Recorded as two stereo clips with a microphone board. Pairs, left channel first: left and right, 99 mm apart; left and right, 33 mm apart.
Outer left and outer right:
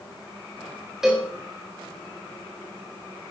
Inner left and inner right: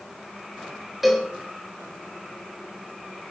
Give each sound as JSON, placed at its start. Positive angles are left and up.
{"t": 1.0, "sound": "a cowbell", "side_deg": -5, "distance_m": 4.0}